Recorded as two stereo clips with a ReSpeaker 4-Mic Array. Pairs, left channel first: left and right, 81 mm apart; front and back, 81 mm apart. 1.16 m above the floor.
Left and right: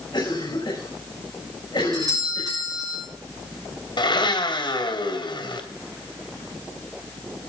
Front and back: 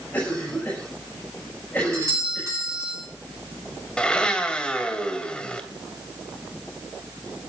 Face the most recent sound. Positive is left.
turn(degrees=80)